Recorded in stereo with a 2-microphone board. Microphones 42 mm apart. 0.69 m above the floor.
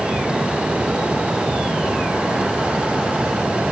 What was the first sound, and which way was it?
Only background noise.